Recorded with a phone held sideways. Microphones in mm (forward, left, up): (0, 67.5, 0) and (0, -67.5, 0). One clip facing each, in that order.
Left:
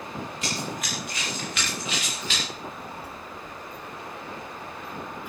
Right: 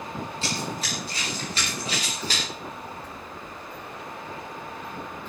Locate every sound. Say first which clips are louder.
0.4 s running footsteps: right 1 dB; 30° right (ahead or behind), 10 m; by 2.4 s 40° right (ahead or behind), 10.5 m
2.5 s a child speaking: even; 10° left (ahead or behind), 2.5 m